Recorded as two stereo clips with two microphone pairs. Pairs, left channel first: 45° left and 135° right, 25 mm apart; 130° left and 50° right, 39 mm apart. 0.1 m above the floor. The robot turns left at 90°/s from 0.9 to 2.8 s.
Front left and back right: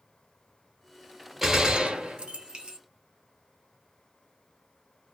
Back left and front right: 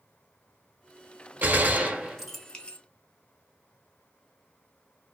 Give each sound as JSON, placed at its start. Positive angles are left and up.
{"t": 1.4, "sound": "a gunshot", "azimuth_deg": -55, "distance_m": 0.8}